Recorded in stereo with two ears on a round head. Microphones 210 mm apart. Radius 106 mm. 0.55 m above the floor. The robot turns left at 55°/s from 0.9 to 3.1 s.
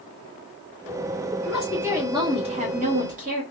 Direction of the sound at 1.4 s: 5° left.